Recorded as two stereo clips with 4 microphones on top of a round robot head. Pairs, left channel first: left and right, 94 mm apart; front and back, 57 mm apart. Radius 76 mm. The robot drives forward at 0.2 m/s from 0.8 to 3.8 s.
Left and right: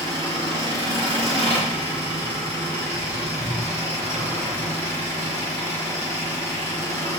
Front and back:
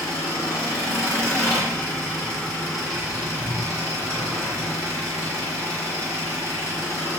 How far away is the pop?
I don't hear a pop.